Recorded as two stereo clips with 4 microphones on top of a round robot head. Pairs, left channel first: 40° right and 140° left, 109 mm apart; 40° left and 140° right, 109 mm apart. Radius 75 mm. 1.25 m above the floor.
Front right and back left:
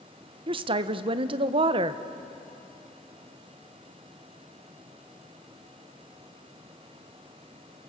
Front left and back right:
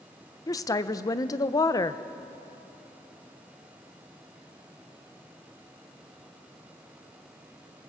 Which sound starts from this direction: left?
A woman speaking, at 0.5 s.